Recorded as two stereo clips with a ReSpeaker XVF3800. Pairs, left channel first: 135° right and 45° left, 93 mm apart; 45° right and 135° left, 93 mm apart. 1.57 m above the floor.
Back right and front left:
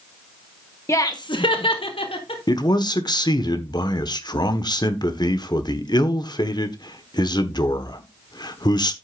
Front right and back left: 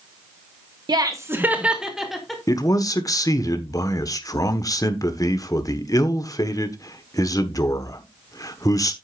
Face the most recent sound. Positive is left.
turn(degrees=-95)